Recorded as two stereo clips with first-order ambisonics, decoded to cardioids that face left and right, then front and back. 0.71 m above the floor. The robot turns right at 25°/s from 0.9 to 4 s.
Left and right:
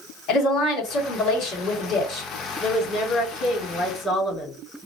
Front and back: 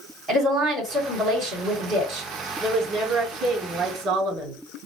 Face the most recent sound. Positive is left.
turn(degrees=160)